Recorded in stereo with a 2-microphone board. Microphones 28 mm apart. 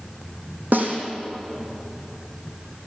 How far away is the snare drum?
About 5 m.